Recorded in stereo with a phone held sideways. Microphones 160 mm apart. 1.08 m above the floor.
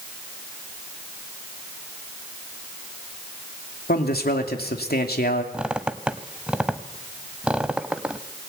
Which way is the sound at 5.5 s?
5° right (ahead or behind).